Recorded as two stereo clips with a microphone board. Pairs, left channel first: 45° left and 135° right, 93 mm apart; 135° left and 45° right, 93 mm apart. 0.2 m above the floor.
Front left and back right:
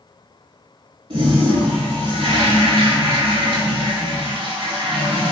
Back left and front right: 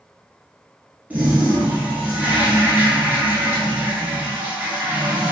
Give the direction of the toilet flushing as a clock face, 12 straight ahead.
4 o'clock.